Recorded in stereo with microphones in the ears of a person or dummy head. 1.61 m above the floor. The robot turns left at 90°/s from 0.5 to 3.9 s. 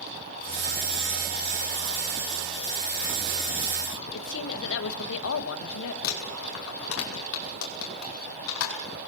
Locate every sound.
4.1 s a woman speaking: 75° left (ahead or behind), 2 m
6.0 s crumpling: 90° left, 5 m